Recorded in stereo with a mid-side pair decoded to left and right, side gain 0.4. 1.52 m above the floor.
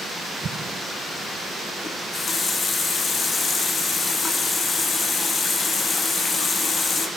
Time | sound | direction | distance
0.4 | an explosion | 55° right | 0.9 m
1.8 | a running tap | 45° left | 1.7 m